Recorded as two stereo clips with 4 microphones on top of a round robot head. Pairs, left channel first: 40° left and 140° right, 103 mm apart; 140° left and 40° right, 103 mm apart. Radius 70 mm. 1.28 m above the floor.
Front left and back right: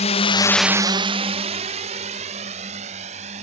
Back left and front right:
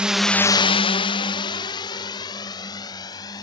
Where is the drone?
40° left; by 3.4 s 160° right.